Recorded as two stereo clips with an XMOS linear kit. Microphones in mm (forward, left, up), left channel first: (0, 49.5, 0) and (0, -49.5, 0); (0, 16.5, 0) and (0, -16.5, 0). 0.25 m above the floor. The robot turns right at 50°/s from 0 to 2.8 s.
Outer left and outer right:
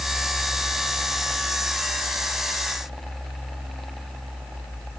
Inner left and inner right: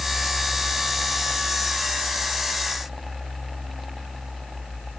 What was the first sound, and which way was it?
Only background noise.